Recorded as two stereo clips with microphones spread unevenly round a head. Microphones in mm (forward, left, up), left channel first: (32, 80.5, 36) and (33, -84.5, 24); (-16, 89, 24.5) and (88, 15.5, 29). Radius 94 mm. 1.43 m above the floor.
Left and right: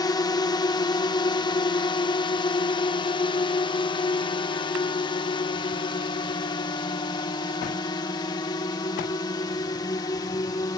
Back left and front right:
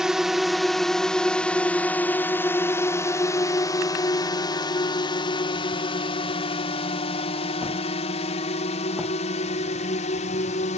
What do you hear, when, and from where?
0.0 s a drone: 50° left; by 10.8 s 160° left